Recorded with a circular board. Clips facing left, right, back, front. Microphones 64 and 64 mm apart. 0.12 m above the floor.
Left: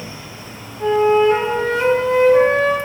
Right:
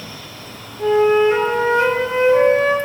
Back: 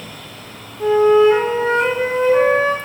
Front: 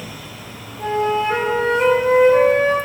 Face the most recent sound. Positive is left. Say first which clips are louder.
# even, back 8 dB
turn(degrees=-15)